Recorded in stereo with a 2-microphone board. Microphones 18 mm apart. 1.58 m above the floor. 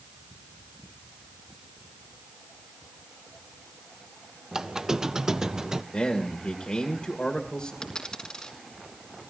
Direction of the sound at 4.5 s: 35° right (ahead or behind).